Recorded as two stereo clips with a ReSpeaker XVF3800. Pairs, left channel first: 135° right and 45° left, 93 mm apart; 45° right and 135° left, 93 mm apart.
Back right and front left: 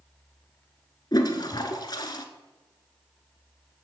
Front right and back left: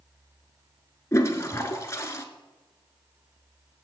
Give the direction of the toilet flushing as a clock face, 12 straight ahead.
3 o'clock.